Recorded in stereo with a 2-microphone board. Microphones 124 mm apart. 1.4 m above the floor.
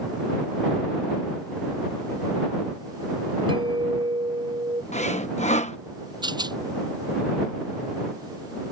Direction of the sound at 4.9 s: 65° left (ahead or behind).